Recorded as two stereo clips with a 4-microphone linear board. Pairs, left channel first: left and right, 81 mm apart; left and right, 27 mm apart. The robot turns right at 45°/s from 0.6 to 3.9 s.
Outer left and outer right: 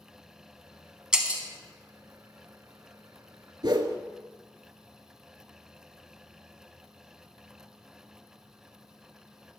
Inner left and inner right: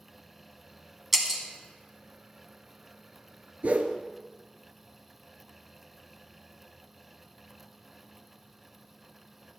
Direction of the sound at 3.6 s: 70° right (ahead or behind).